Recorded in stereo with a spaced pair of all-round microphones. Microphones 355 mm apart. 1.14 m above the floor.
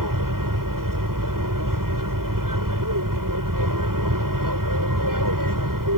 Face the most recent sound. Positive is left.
turn(degrees=-65)  # may be behind; listen again after turning